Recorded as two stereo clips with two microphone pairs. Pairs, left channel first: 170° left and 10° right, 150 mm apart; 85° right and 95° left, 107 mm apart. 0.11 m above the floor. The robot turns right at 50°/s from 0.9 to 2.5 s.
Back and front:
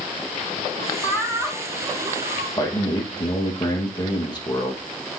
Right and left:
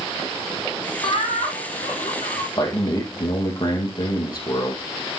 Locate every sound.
1.0 s laughter: 125° right, 3.5 m; by 2.5 s 55° right, 3.5 m
2.6 s a man speaking: 130° right, 3.5 m